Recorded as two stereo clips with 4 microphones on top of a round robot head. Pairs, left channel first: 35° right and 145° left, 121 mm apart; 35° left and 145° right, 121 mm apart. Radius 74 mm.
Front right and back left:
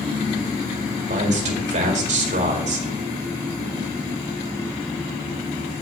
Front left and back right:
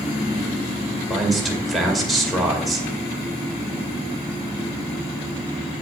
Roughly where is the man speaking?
Behind left.